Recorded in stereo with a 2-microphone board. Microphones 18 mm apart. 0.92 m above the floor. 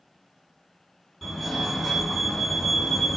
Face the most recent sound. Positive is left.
turn(degrees=5)  # may be behind; listen again after turning